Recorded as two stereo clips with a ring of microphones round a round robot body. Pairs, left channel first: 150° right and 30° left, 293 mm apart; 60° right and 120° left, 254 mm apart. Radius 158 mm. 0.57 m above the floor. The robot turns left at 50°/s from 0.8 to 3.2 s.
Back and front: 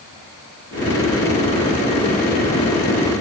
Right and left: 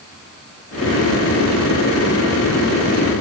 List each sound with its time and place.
Only background noise.